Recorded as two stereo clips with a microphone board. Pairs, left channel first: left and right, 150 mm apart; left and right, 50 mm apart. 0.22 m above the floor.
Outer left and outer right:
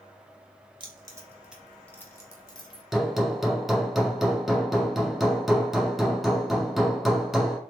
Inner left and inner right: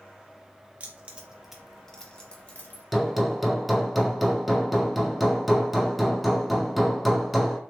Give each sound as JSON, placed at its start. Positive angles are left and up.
{"t": 0.8, "sound": "keys jangling", "side_deg": -35, "distance_m": 0.9}
{"t": 2.9, "sound": "hammering", "side_deg": 0, "distance_m": 0.8}